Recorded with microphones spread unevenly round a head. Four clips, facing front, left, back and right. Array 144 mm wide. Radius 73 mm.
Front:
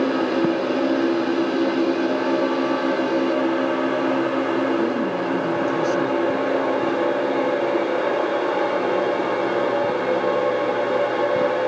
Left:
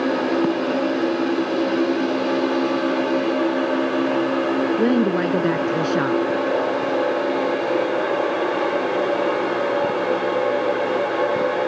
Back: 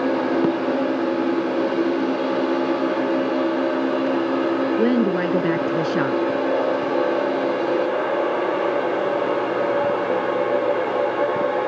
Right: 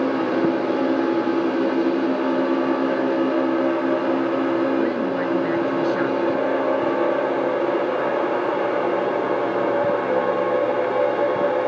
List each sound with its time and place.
4.8 s a woman speaking: 135° left